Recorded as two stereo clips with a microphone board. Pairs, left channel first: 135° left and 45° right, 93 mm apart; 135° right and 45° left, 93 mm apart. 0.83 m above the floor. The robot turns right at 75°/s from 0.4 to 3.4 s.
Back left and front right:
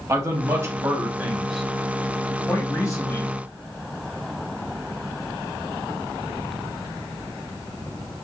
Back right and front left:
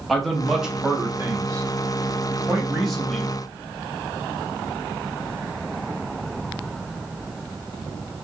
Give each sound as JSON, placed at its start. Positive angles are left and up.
{"t": 0.1, "sound": "a man speaking", "azimuth_deg": -50, "distance_m": 0.7}